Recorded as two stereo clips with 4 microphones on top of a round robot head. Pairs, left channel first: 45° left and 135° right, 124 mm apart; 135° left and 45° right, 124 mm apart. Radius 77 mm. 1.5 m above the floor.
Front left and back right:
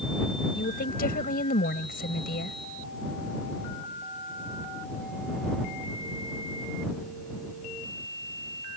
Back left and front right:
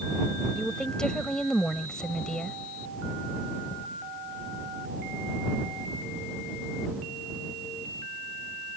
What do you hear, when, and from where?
0.6 s a woman speaking: 50° left